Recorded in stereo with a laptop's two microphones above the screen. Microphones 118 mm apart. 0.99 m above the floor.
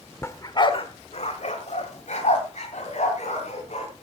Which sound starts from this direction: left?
A dog barking, at 0.2 s.